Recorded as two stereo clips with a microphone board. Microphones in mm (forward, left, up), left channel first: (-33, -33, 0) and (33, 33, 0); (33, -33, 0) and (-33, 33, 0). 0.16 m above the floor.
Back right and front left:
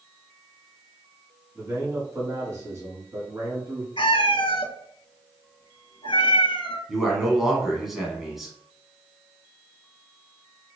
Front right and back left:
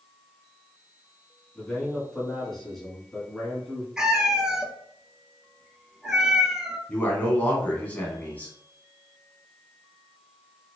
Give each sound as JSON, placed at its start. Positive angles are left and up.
{"t": 1.6, "sound": "a man speaking", "azimuth_deg": 35, "distance_m": 1.4}
{"t": 4.0, "sound": "a cat meowing", "azimuth_deg": -145, "distance_m": 0.6}
{"t": 6.9, "sound": "a man speaking", "azimuth_deg": -35, "distance_m": 1.0}